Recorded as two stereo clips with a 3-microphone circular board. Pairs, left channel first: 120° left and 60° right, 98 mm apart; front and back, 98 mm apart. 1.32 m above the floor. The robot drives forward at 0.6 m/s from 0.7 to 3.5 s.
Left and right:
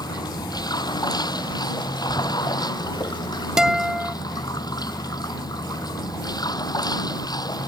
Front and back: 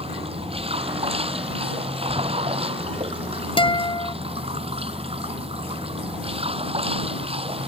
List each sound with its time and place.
0.0 s running water: 165° left
3.6 s a guitar: 25° left